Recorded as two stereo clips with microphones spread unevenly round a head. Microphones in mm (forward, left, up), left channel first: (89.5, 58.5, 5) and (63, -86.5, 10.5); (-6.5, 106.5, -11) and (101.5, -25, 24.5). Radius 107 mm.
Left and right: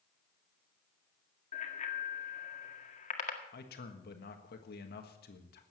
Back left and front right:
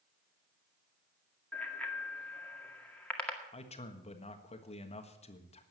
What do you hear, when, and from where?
1.5 s a bicycle bell: 45° left, 2 m
3.5 s a man speaking: 75° left, 1.5 m